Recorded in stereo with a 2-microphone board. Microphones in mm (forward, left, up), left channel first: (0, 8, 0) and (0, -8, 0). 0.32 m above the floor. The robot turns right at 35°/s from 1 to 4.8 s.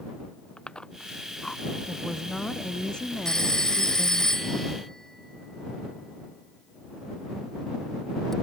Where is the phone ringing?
45° left (ahead or behind); by 8.3 s 25° left (ahead or behind).